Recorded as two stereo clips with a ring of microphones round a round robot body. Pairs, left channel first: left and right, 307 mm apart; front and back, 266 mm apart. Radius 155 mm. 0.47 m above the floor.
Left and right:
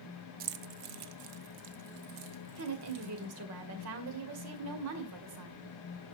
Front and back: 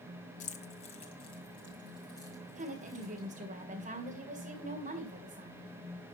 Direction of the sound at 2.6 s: 120° right.